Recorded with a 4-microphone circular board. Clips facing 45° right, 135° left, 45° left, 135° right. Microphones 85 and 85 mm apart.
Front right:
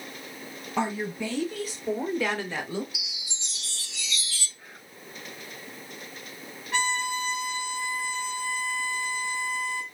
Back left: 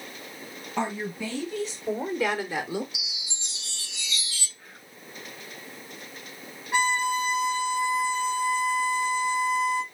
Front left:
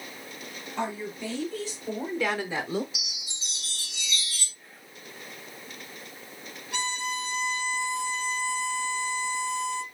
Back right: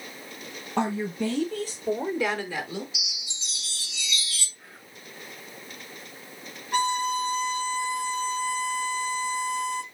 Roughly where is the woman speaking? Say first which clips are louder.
Front right 1 dB, back right 6 dB; behind right.